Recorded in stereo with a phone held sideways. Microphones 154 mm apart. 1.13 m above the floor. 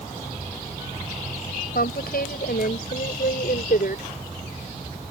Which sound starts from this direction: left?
A woman speaking, at 1.8 s.